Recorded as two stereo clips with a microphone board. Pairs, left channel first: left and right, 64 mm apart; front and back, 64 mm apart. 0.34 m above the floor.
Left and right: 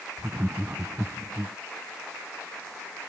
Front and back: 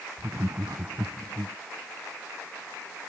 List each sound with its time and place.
0.2 s laughter: 140° right